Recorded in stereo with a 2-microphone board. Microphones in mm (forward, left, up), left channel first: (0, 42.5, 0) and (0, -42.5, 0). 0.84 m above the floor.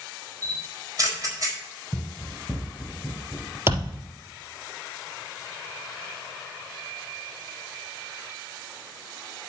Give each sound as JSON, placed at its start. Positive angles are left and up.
{"t": 0.4, "sound": "a camera shutter", "side_deg": -40, "distance_m": 4.5}
{"t": 1.9, "sound": "running footsteps", "side_deg": 5, "distance_m": 2.5}
{"t": 3.7, "sound": "a thud", "side_deg": -30, "distance_m": 3.0}